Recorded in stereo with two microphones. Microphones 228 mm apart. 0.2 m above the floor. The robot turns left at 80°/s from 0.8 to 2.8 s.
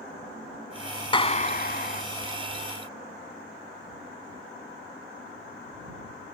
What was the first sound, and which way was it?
A clap, 145° left.